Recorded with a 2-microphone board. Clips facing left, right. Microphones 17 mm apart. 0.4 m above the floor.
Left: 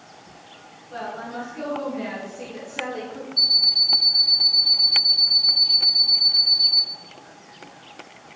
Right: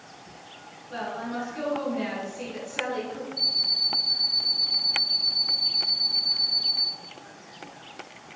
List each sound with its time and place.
0.9 s a woman speaking: 30° right (ahead or behind), 2.0 m
3.4 s an alarm clock: 35° left (ahead or behind), 2.0 m